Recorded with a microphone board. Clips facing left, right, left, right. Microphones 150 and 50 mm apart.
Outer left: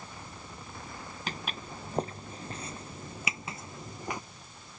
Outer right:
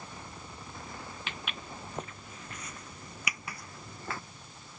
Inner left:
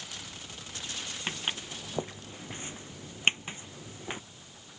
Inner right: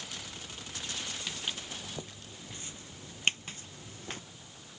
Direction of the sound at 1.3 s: 40° left (ahead or behind).